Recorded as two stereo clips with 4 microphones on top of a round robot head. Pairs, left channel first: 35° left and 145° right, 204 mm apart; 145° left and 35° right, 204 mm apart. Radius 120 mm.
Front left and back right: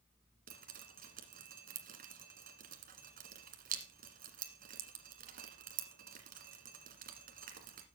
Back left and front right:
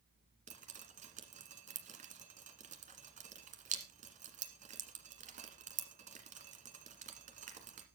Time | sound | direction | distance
0.5 | dripping | 90° right | 1.5 m